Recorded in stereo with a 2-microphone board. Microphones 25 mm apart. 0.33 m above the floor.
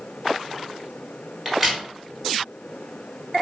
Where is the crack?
5° right (ahead or behind), 1.4 m.